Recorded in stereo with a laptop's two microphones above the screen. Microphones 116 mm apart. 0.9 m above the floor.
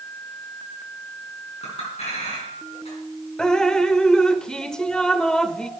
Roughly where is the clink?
Left.